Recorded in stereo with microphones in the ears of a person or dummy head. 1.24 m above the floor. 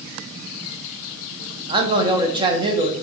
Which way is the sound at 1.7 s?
25° right (ahead or behind).